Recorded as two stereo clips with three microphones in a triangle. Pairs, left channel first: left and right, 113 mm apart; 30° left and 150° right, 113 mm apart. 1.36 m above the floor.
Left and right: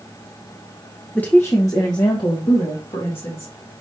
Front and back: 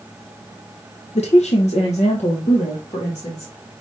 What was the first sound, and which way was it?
A woman speaking, 15° left.